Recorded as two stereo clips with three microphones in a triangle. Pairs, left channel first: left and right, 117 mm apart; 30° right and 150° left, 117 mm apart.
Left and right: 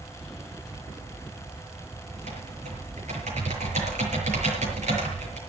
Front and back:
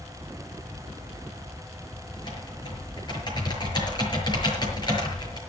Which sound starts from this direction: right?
Typing on a keyboard, at 2.1 s.